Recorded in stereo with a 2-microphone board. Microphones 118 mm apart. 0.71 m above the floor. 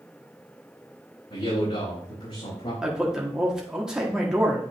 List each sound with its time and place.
1.3 s a man speaking: 65° left (ahead or behind), 4 m
2.8 s a man speaking: 5° right (ahead or behind), 1.1 m